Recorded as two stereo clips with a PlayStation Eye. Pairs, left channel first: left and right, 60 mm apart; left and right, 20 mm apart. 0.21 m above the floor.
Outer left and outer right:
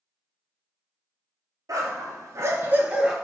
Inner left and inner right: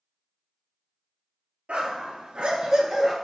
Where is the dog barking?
85° right, 0.9 m; by 3.1 s 10° right (ahead or behind), 0.7 m.